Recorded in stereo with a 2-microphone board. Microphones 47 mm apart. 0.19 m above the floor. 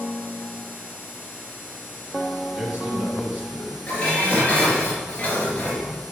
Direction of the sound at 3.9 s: 25° left (ahead or behind).